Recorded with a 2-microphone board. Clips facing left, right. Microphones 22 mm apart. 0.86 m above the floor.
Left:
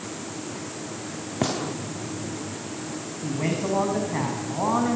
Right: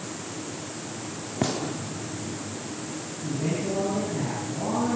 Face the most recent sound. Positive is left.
turn(degrees=65)  # may be behind; listen again after turning